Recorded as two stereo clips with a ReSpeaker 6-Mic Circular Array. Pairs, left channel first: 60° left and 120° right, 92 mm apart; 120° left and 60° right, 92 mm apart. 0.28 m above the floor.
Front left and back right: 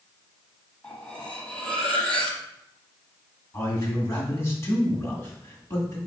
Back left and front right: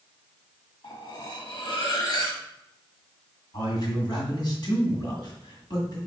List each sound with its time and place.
0.8 s cutlery clinking: 135° left, 1.0 m
3.5 s a man speaking: 115° left, 1.9 m